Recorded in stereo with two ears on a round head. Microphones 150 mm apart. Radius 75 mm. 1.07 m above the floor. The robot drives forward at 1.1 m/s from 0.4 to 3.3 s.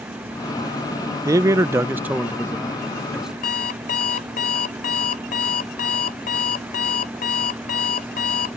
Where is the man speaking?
15° right (ahead or behind); by 3.3 s 5° right (ahead or behind).